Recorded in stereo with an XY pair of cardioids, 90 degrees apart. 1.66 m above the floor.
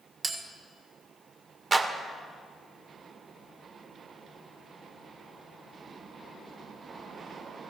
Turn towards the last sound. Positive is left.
turn(degrees=-40)